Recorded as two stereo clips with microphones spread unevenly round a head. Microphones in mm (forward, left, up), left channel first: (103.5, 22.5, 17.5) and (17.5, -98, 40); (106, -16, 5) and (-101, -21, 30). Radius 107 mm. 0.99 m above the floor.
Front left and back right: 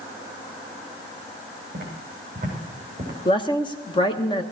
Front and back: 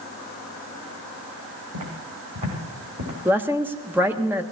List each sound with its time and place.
1.7 s footsteps: straight behind, 5.5 m; by 3.1 s 170° left, 5.5 m
3.2 s a woman speaking: 95° left, 1.1 m